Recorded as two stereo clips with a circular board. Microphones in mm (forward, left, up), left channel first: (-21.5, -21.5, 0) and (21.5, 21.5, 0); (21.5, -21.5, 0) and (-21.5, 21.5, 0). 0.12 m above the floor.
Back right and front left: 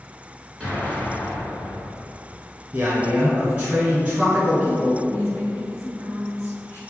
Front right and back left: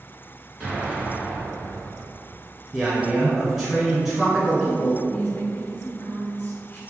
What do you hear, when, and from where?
0.6 s an explosion: 160° left, 1.6 m
2.7 s a man speaking: 65° left, 1.2 m
5.1 s a woman speaking: 105° right, 1.8 m